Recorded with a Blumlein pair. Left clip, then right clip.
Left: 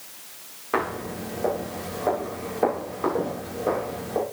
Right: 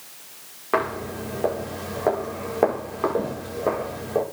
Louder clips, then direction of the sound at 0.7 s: Right 2 dB; 35° right.